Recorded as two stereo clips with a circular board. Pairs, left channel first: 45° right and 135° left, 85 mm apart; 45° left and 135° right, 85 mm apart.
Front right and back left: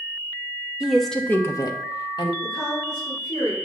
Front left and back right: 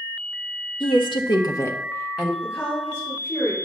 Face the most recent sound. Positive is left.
turn(degrees=-5)